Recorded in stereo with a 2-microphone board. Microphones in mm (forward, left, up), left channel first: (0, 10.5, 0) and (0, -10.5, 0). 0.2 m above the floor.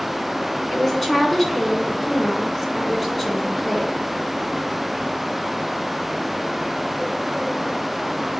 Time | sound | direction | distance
0.7 | a woman speaking | 5° left (ahead or behind) | 2 m